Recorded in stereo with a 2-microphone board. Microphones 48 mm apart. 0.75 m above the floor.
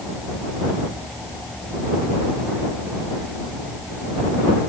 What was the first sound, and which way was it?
Only background noise.